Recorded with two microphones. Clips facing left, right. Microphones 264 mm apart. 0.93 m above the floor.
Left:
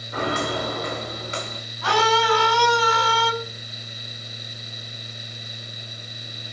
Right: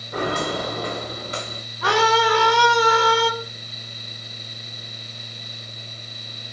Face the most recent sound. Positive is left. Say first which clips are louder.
# right 2 dB
turn(degrees=-75)  # may be behind; listen again after turning